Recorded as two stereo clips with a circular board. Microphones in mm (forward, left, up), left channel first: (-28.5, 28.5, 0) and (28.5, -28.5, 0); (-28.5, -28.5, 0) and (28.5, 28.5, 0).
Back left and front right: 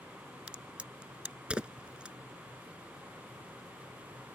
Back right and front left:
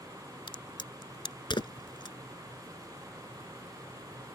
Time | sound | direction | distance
0.5 | a crack | 120° right | ?